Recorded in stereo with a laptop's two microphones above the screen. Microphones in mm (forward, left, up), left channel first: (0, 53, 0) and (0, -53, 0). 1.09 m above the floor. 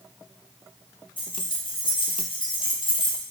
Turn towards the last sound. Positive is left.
turn(degrees=50)  # may be behind; listen again after turning